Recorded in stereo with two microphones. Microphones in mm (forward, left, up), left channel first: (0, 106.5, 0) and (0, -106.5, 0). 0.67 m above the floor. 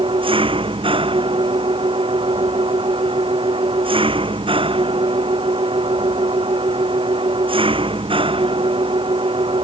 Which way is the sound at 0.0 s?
25° right (ahead or behind).